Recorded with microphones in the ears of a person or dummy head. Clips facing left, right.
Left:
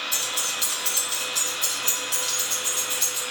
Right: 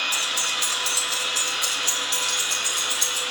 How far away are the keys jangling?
About 3 m.